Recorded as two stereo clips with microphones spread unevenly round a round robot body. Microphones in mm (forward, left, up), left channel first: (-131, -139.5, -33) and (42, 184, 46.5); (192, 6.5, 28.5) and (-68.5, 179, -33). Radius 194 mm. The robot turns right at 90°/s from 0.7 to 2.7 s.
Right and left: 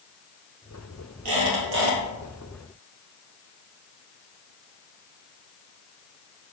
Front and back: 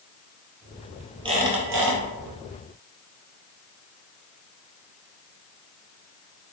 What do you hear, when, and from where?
1.2 s a squeak: 65° left, 2 m; by 2.0 s 135° left, 2 m